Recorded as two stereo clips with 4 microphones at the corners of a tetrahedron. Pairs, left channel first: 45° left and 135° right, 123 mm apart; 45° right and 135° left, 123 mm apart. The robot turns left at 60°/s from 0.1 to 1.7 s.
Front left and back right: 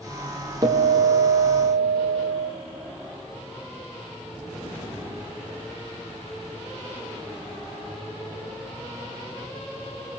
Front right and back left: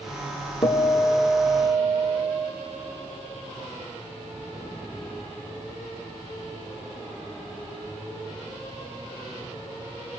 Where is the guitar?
85° right, 2.5 m; by 2.5 s 150° right, 2.5 m.